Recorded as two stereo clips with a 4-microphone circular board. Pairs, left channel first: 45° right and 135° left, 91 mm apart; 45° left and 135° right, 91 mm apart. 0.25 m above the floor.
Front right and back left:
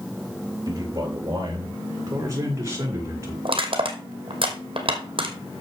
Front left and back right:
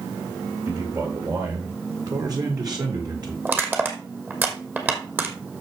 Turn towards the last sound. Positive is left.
turn(degrees=155)